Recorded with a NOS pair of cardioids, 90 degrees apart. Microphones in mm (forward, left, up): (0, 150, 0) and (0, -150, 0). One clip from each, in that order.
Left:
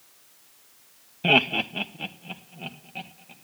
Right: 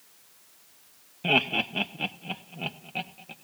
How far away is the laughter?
About 0.5 m.